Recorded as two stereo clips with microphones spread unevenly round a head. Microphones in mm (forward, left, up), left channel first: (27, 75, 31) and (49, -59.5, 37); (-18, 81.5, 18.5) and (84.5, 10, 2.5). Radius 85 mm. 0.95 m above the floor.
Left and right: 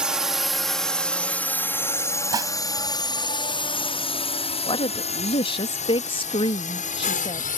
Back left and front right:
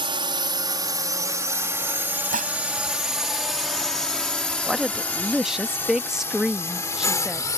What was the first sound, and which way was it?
A drone, 5° left.